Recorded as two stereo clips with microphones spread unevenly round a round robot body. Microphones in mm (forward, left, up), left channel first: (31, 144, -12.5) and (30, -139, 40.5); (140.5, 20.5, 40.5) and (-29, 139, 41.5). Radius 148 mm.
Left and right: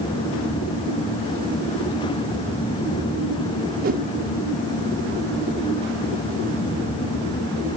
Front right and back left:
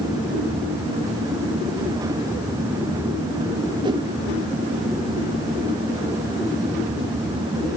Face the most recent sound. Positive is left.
turn(degrees=-155)